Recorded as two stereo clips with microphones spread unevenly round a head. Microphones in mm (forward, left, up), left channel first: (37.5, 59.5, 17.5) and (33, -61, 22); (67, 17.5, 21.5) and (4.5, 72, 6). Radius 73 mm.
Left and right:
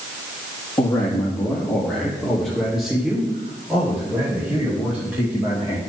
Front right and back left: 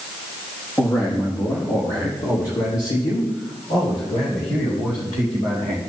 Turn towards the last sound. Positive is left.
turn(degrees=-15)